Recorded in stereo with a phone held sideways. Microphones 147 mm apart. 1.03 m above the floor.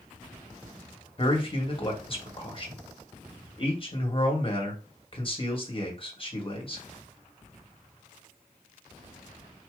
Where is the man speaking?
35° left (ahead or behind), 1.5 m.